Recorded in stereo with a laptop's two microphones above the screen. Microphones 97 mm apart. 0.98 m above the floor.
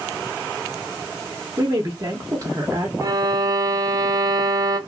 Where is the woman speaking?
35° right (ahead or behind), 0.9 m.